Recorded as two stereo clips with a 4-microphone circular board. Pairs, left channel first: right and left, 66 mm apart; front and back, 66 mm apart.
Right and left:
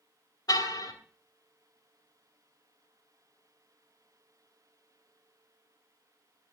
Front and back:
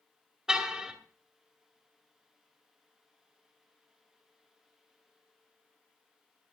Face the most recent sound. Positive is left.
turn(degrees=-100)